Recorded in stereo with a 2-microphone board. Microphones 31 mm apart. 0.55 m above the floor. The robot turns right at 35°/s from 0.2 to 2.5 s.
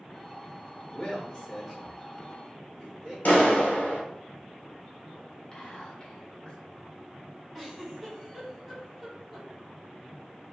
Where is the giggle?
Centre (ahead or behind), 1.9 m.